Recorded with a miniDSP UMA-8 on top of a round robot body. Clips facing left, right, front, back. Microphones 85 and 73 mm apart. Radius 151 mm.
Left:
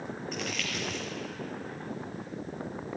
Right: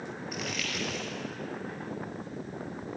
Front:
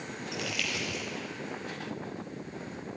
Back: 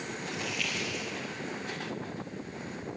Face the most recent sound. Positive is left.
turn(degrees=-5)